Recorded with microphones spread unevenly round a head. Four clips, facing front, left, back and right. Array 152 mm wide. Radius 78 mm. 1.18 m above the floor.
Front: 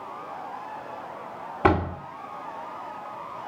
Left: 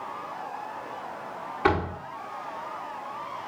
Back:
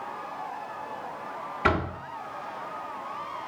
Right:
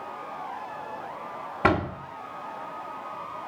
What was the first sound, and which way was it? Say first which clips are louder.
A door slam: right 1 dB, front 5 dB; 35° right.